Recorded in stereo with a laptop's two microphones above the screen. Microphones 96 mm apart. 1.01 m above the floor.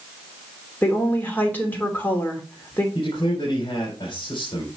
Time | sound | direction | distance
0.8 | a woman speaking | 20° left (ahead or behind) | 2.5 m
3.0 | a man speaking | 60° left (ahead or behind) | 3 m